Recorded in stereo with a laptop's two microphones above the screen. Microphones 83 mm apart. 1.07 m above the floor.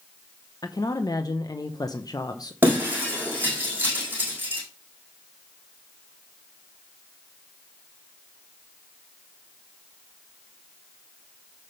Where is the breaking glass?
25° right (ahead or behind), 4 m.